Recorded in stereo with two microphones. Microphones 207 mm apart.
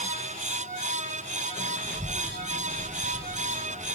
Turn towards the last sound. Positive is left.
turn(degrees=20)  # may be behind; listen again after turning